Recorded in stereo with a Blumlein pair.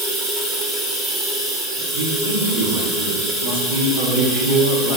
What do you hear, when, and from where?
0.0 s running water: 25° right, 2.5 m
1.9 s a man speaking: 65° right, 3 m